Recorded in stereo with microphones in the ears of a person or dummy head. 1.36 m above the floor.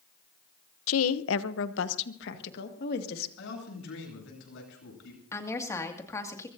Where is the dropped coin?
No dropped coin in this recording.